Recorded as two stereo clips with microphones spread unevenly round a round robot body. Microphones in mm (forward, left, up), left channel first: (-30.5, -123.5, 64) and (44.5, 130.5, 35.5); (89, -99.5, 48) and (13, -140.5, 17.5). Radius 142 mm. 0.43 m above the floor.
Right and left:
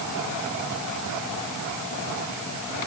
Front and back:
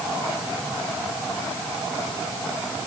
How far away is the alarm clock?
No alarm clock in this recording.